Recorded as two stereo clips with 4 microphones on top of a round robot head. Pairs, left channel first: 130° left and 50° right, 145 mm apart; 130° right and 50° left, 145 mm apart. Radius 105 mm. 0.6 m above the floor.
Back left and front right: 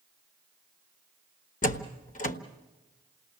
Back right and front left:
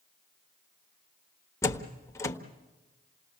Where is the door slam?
160° left, 1.3 m.